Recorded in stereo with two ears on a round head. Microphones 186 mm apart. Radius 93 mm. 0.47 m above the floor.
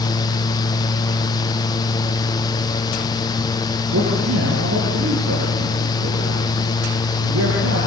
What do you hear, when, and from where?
3.9 s a man speaking: 70° right (ahead or behind), 8 m